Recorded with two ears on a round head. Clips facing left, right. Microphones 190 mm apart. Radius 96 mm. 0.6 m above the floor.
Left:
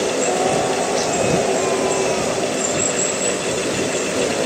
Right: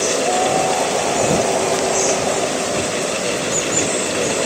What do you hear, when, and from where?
0.2 s a scream: 45° left (ahead or behind)